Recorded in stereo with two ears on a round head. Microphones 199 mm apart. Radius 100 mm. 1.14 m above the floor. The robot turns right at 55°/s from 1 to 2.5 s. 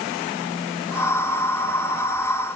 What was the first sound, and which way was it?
Only background noise.